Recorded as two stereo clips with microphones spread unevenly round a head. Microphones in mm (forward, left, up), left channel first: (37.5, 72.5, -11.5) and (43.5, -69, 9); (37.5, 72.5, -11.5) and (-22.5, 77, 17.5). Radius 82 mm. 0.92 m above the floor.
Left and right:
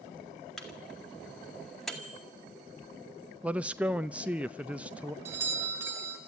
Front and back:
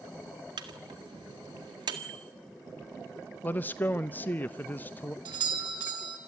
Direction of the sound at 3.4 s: Straight ahead.